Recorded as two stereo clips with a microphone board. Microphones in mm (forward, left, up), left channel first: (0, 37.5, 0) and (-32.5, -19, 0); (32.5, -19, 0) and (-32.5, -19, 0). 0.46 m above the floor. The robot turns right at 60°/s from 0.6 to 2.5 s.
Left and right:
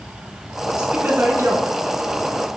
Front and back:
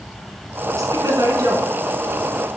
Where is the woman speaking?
150° left, 4 m; by 2.5 s 105° right, 4 m.